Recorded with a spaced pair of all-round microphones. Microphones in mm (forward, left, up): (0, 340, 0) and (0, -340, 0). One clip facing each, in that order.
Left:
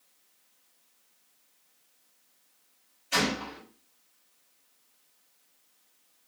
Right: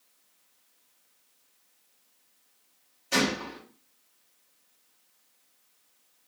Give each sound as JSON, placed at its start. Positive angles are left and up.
{"t": 3.1, "sound": "a gunshot", "side_deg": -65, "distance_m": 1.5}